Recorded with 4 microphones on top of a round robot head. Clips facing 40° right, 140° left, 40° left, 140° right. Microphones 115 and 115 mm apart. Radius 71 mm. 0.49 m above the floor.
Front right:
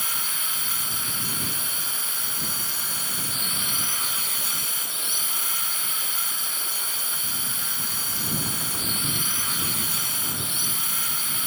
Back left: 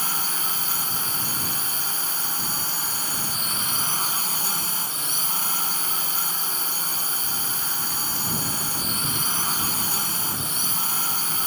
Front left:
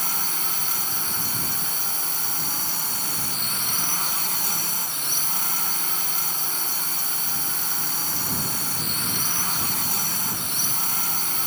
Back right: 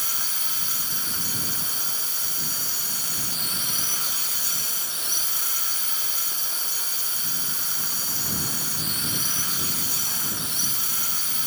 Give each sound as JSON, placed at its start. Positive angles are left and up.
{"t": 0.0, "sound": "a drone", "azimuth_deg": 80}